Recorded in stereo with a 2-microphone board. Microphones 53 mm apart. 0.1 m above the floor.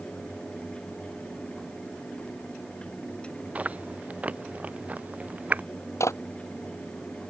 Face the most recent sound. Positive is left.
turn(degrees=65)  # may be behind; listen again after turning